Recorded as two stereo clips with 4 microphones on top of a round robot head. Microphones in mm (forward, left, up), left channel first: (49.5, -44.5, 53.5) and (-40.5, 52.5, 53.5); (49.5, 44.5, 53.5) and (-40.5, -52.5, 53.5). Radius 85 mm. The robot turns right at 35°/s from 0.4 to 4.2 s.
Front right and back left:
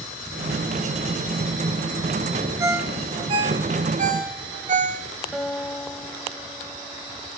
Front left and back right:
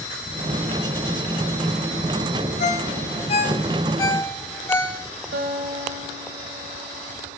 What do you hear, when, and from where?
2.6 s a ringtone: 65° left, 1.2 m; by 5.0 s 120° left, 1.2 m
5.3 s a guitar: 145° right, 1.2 m